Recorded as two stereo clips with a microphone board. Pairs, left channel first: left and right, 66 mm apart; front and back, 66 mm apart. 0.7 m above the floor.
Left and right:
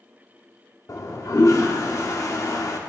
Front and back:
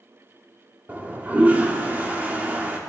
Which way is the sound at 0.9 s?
115° left.